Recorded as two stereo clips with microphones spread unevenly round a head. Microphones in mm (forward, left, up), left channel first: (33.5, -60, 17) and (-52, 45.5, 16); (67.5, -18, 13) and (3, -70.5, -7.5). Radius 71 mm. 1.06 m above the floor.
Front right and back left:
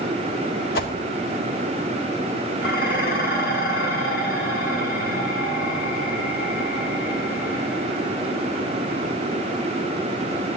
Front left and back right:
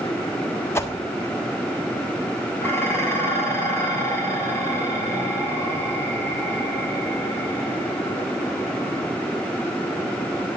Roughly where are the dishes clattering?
Ahead.